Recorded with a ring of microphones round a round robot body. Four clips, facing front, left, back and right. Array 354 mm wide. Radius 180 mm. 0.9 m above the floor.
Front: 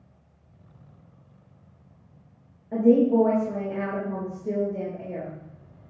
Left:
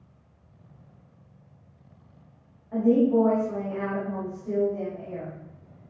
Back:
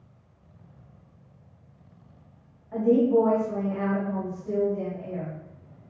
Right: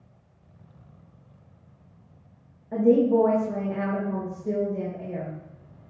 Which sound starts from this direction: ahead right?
A woman speaking, at 2.7 s.